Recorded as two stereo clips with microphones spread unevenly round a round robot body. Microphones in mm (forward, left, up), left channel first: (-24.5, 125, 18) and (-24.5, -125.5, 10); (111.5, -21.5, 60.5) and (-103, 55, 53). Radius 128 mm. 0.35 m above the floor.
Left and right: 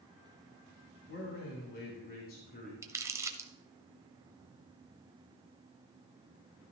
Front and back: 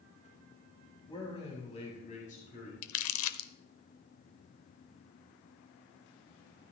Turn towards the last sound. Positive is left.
turn(degrees=-15)